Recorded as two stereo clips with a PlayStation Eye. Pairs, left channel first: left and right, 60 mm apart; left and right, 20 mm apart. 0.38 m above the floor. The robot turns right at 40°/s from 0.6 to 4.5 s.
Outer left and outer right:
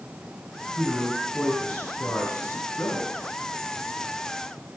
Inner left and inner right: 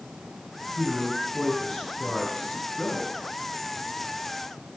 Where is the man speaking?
10° right, 3.5 m; by 3.1 s 85° left, 3.5 m.